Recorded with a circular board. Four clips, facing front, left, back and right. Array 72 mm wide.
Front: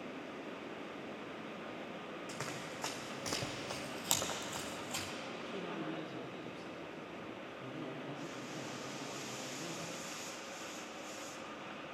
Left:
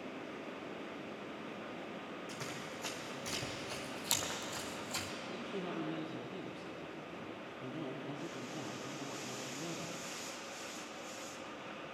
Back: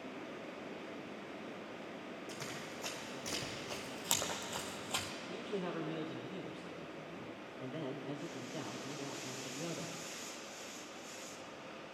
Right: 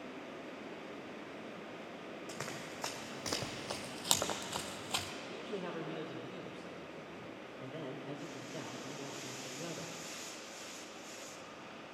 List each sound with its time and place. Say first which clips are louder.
2.3 s running footsteps: even, front 2 dB; 50° right, 2 m; by 5.1 s 125° right, 1.0 m
5.3 s a man speaking: even, back 7 dB; 135° right, 1.8 m